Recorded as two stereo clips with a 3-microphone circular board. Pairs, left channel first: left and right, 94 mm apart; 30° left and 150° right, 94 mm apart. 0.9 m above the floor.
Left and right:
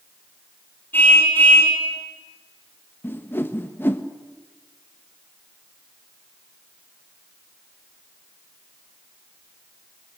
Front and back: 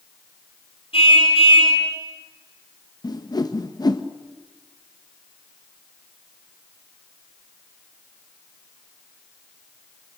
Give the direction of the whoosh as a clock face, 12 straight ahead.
11 o'clock.